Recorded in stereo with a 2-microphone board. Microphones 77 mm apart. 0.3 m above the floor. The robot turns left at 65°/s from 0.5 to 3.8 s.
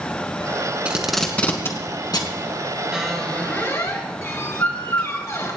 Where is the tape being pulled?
15° right (ahead or behind), 2 m; by 2.4 s 70° left (ahead or behind), 2 m.